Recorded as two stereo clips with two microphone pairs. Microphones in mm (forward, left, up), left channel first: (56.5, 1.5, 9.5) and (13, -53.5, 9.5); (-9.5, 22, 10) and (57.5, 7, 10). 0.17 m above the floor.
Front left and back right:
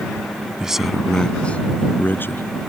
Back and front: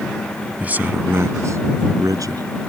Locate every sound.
0.6 s a man speaking: 60° right; by 2.6 s straight ahead